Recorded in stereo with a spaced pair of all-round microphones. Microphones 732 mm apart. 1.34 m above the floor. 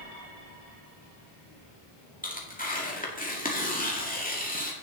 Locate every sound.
2.2 s tearing paper: 10° left (ahead or behind), 2 m